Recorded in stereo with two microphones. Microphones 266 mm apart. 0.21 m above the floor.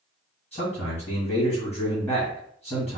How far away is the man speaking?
About 1.9 m.